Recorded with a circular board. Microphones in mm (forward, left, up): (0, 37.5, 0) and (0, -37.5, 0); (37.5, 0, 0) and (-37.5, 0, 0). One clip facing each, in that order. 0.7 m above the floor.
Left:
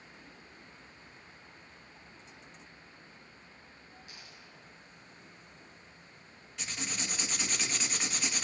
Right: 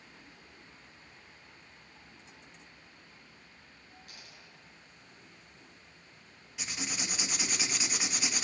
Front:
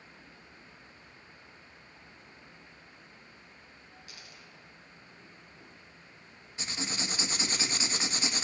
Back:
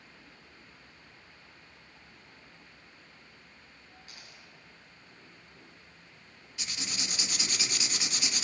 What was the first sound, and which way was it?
A dropped coin, 130° right.